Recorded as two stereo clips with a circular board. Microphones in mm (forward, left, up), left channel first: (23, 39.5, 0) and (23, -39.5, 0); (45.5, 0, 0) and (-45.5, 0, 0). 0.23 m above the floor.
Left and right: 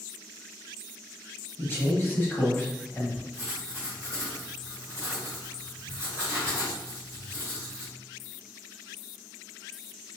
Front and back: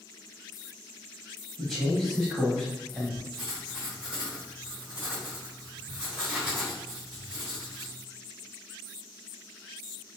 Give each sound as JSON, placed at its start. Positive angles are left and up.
{"t": 1.6, "sound": "a man speaking", "azimuth_deg": 80, "distance_m": 1.0}
{"t": 3.3, "sound": "writing", "azimuth_deg": -110, "distance_m": 1.8}